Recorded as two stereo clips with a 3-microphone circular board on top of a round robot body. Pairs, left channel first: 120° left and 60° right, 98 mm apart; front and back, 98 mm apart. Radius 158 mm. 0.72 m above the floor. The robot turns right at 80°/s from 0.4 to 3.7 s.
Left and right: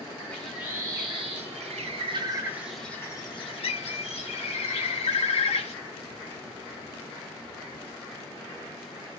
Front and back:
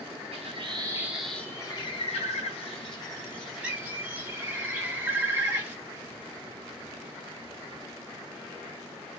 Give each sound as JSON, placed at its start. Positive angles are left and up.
{"t": 0.3, "sound": "a bird", "azimuth_deg": -160, "distance_m": 0.8}